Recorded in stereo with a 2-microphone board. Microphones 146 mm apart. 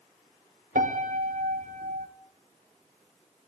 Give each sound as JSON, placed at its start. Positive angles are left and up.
{"t": 0.8, "sound": "a piano", "side_deg": -70, "distance_m": 0.7}